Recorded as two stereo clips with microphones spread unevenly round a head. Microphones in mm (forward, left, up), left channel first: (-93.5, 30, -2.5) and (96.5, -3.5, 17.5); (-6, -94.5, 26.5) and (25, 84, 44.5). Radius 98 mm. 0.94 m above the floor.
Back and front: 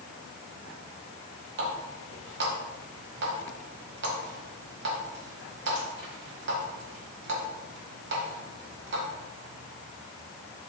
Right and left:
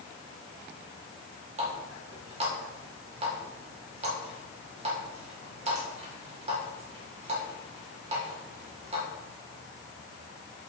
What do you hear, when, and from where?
1.6 s a running tap: 25° left, 2 m